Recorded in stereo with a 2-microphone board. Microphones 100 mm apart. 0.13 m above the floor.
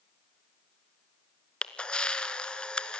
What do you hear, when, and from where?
1.6 s a camera shutter: 10° left (ahead or behind), 0.9 m